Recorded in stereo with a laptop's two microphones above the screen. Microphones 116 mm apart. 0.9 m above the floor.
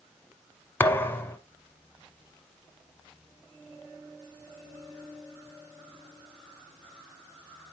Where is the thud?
20° left (ahead or behind), 0.9 m.